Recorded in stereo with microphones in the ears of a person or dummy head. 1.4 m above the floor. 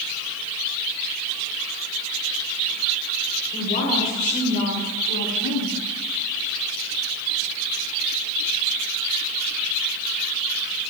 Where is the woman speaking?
50° left (ahead or behind), 3.5 m; by 5.8 s 80° left, 1.8 m.